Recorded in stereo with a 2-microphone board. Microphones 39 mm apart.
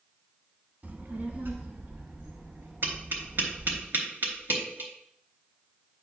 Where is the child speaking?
45° right (ahead or behind), 1.0 m; by 3.8 s 75° right (ahead or behind), 3.5 m.